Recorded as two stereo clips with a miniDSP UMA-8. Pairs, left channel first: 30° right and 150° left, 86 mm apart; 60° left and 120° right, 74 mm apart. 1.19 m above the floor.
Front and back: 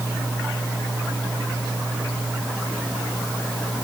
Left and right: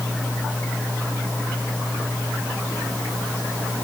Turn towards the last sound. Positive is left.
No sound to turn to.